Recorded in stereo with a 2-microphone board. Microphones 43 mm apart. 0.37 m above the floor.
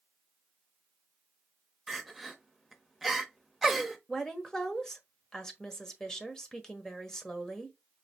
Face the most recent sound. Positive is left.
turn(degrees=15)  # may be behind; listen again after turning